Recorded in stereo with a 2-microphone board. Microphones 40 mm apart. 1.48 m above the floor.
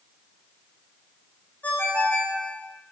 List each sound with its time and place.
1.6 s a ringtone: 45° left (ahead or behind), 0.9 m